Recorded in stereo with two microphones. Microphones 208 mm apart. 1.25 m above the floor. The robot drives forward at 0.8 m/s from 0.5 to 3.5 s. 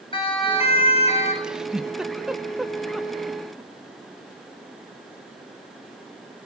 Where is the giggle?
5° right (ahead or behind), 0.8 m; by 3.7 s centre (ahead or behind), 2.5 m.